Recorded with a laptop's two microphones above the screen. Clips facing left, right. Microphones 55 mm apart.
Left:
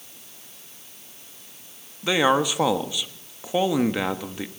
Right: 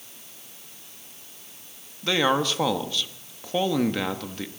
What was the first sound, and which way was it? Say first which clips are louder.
A man speaking: left 2 dB; 15° left (ahead or behind).